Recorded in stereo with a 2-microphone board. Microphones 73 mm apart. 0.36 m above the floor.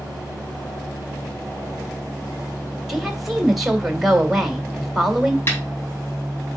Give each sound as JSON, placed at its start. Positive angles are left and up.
{"t": 2.9, "sound": "a woman speaking", "side_deg": -5, "distance_m": 1.9}
{"t": 5.5, "sound": "a snare drum", "side_deg": 30, "distance_m": 3.0}